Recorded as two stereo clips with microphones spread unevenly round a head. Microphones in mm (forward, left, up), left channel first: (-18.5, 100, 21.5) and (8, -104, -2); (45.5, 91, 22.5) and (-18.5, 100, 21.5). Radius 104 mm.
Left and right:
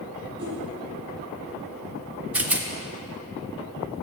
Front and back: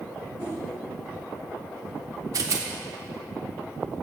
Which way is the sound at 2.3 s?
160° right.